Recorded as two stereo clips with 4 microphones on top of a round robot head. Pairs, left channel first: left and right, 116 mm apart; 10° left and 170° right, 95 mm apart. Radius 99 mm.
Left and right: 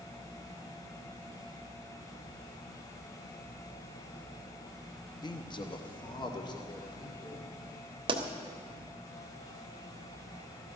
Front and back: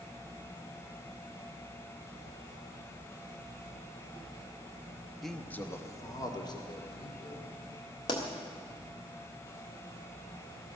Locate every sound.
5.2 s a man speaking: 95° left, 1.3 m; by 7.5 s 35° left, 3.5 m
8.1 s a pop: 40° right, 1.4 m